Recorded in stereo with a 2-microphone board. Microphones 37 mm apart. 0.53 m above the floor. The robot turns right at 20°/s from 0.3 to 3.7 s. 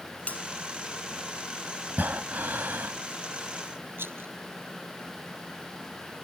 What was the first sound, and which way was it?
A bell, 35° left (ahead or behind).